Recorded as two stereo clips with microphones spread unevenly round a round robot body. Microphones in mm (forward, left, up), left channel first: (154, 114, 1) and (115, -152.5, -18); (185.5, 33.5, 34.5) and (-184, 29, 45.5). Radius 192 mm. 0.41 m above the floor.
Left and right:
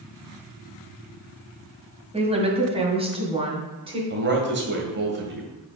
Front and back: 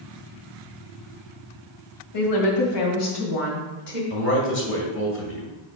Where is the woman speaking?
30° right, 1.8 m; by 4.0 s 25° right, 3 m.